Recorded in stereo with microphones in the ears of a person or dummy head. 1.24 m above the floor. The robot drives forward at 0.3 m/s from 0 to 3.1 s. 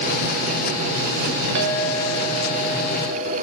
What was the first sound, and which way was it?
A clink, 70° right (ahead or behind).